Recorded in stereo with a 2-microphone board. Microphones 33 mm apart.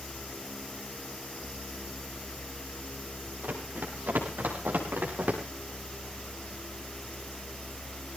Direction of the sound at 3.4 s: 65° right (ahead or behind).